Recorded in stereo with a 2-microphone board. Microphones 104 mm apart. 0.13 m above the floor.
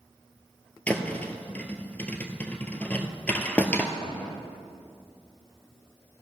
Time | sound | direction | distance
0.9 | a thud | 10° left (ahead or behind) | 1.1 m